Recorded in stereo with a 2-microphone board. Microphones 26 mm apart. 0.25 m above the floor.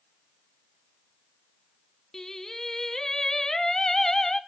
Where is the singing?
20° left (ahead or behind), 0.7 m.